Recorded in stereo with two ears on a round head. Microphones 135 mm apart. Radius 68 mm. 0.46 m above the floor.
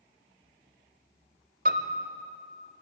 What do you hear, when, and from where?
1.6 s a piano: 60° right (ahead or behind), 1.3 m